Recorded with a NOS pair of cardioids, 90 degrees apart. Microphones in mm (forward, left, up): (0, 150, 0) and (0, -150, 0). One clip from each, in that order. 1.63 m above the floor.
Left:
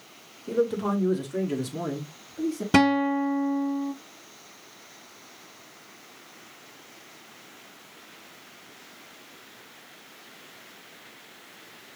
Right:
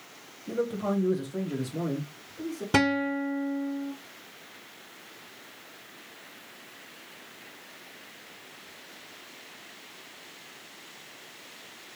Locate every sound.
0.5 s a man speaking: 15° left, 1.2 m; by 2.6 s 55° left, 2 m
2.7 s a guitar: 10° left, 0.6 m